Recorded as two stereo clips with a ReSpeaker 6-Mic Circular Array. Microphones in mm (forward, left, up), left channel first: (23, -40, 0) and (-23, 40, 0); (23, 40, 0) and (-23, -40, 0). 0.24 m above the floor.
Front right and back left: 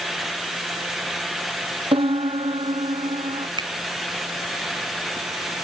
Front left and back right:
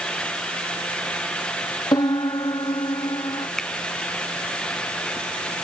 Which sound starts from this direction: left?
A piano, at 1.9 s.